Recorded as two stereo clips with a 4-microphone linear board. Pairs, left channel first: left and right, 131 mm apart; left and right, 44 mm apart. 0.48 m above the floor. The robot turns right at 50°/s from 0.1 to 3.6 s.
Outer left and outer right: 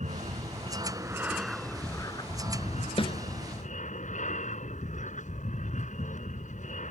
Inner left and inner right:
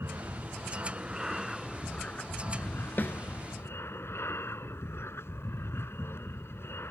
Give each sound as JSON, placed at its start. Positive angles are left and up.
{"t": 0.0, "sound": "an aircraft", "azimuth_deg": -70}
{"t": 3.0, "sound": "a snare drum", "side_deg": 50}